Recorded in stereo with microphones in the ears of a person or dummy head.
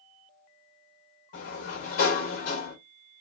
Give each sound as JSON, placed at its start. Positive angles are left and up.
{"t": 1.3, "sound": "a sliding door", "side_deg": 50, "distance_m": 3.0}